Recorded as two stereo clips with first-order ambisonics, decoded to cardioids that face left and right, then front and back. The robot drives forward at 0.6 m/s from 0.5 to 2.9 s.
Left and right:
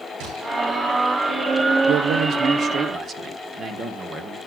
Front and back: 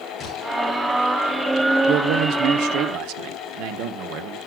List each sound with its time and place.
0.2 s a gunshot: 75° right, 10 m
1.9 s a man speaking: 130° right, 0.6 m; by 4.4 s 155° right, 1.0 m